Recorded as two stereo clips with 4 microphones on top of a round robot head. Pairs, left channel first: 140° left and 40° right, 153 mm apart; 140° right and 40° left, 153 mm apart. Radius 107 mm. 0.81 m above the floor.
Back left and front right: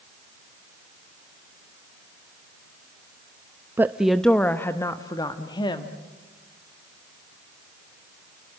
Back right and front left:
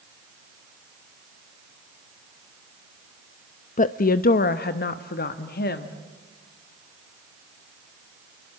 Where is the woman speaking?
110° right, 0.6 m; by 6.0 s 160° right, 1.5 m.